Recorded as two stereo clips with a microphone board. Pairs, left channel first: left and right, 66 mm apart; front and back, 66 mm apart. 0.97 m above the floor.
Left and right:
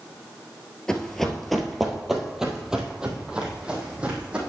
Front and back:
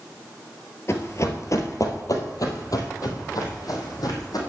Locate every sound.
0.9 s running footsteps: 15° left, 1.3 m; by 4.4 s 15° right, 3 m